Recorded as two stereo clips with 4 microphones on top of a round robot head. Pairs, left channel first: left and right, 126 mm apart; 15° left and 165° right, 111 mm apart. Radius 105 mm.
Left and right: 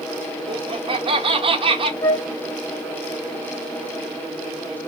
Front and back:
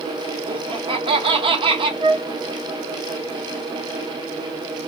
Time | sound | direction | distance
0.5 | laughter | 135° right | 1.6 m
2.0 | a flute | 155° left | 1.2 m